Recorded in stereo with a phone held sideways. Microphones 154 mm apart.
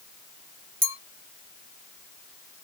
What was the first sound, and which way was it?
A clink, 65° right (ahead or behind).